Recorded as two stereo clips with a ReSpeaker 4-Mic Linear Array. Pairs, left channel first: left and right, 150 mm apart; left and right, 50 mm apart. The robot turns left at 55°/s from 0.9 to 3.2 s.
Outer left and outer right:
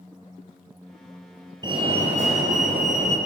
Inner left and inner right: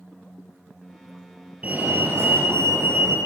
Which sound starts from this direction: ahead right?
A fire alarm, at 1.6 s.